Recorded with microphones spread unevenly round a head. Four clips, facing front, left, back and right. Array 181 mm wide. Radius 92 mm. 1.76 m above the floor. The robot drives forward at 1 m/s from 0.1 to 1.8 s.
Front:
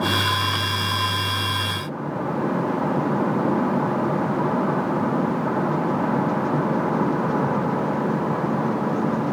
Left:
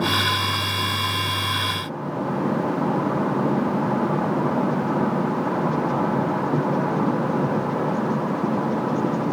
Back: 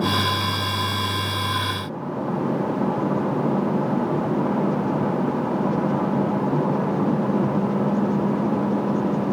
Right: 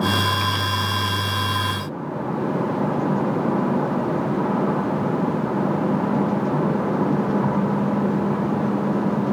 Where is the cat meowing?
I don't hear a cat meowing.